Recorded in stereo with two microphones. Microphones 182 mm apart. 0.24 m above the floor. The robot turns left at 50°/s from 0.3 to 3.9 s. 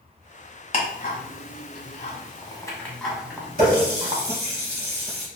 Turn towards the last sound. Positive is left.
turn(degrees=-60)  # may be behind; listen again after turning